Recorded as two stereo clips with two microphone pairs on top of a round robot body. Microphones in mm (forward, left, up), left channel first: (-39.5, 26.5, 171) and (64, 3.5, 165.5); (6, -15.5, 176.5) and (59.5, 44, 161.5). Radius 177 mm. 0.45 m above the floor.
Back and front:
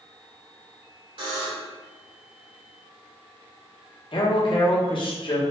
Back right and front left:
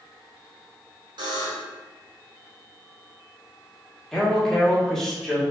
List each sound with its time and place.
1.2 s a buzzer: 25° left, 1.4 m
4.1 s a man speaking: 135° left, 1.3 m